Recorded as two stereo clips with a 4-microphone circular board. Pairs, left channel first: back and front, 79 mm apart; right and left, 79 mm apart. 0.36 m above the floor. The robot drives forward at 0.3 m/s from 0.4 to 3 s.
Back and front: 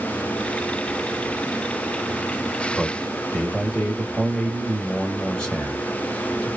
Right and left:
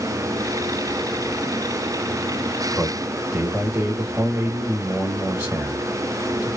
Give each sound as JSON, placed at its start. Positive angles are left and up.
{"t": 2.7, "sound": "a man speaking", "azimuth_deg": 110, "distance_m": 1.2}